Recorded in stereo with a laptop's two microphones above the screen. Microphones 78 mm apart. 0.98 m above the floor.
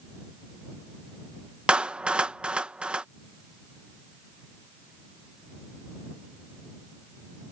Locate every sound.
1.7 s a clap: 15° right (ahead or behind)